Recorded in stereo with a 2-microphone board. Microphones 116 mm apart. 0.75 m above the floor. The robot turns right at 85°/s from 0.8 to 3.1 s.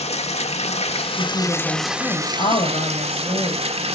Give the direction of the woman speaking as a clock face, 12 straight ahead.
1 o'clock.